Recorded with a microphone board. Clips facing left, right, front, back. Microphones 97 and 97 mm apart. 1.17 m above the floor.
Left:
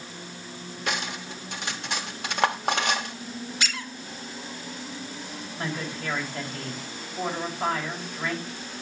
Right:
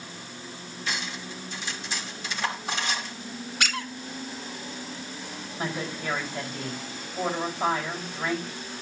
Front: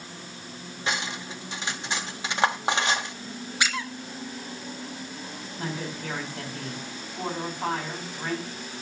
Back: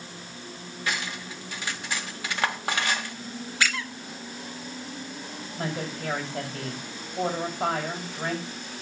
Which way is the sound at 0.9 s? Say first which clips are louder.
Left 3 dB, front 2 dB; 65° left.